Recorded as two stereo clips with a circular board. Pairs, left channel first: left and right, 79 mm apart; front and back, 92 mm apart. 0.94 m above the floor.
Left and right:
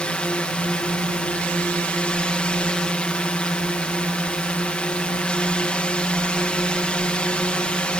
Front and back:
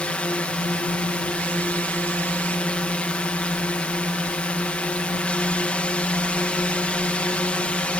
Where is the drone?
45° left.